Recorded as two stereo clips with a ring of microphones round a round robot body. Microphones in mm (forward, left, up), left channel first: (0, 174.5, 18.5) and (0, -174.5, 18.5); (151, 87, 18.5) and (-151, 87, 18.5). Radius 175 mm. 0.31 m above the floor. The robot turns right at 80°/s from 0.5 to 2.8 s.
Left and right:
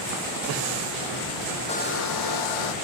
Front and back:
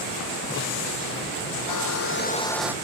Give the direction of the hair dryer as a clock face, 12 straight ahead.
12 o'clock.